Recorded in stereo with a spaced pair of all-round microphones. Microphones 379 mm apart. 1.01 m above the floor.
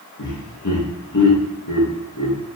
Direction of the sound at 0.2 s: 50° left (ahead or behind).